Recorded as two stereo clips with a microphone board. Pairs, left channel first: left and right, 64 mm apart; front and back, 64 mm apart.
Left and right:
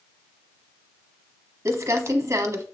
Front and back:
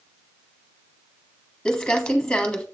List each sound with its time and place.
1.6 s crumpling: 75° right, 1.1 m